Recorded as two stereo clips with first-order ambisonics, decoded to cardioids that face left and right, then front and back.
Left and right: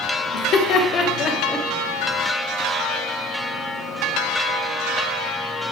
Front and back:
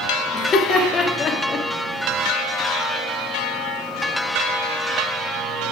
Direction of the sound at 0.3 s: 70° left.